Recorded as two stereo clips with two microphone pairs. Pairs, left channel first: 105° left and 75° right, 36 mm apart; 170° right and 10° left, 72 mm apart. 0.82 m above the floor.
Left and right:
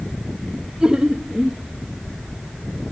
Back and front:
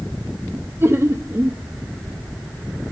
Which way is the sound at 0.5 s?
10° right.